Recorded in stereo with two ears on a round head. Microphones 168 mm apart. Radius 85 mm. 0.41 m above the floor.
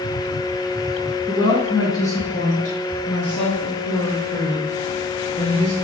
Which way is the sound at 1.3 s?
25° left (ahead or behind).